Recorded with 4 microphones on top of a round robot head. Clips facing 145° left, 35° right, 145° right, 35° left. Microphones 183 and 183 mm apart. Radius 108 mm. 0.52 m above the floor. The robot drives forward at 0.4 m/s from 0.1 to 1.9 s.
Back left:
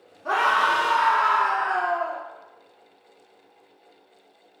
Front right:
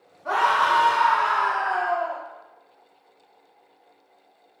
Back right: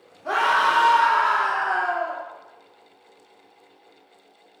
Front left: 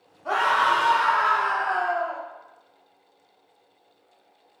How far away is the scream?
About 0.7 m.